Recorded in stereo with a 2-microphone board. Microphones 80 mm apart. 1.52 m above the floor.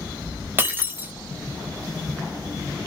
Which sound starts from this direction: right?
Breaking glass, at 0.6 s.